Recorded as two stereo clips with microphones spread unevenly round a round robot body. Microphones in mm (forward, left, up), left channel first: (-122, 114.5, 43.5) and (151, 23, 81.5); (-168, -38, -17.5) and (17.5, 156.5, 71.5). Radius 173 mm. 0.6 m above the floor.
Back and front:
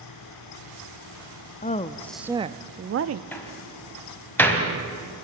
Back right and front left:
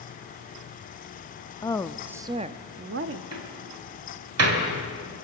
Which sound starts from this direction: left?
A door slam, at 3.3 s.